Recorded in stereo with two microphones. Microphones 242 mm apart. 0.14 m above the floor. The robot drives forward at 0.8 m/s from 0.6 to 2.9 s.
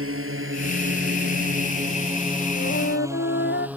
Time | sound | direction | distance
0.0 | a drone | 60° right (ahead or behind) | ?
2.6 | a flute | 50° left (ahead or behind) | ?